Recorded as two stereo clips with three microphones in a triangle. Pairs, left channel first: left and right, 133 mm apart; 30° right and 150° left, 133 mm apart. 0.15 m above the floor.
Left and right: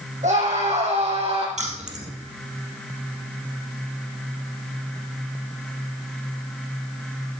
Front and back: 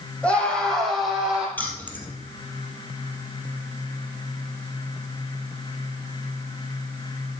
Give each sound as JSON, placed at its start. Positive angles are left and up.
{"t": 0.2, "sound": "a scream", "azimuth_deg": -110, "distance_m": 6.0}
{"t": 1.6, "sound": "keys jangling", "azimuth_deg": -105, "distance_m": 2.5}